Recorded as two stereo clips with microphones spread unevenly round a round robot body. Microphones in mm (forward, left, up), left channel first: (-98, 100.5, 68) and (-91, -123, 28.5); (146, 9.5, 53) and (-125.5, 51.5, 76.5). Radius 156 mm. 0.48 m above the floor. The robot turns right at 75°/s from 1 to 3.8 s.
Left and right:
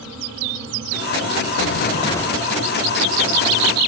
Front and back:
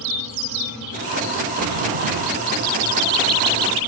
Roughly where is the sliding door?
Behind left.